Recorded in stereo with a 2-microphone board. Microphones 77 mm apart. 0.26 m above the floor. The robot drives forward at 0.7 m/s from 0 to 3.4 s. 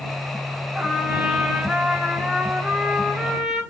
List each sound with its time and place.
0.8 s a trumpet: 10° right (ahead or behind), 1.4 m; by 3.6 s 5° right (ahead or behind), 2.5 m